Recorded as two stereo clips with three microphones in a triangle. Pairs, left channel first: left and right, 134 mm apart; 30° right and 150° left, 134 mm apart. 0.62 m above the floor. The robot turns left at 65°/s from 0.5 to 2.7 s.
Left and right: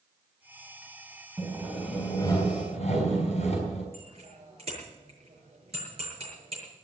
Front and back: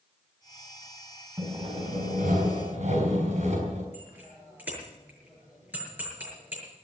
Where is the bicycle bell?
135° right, 7.5 m.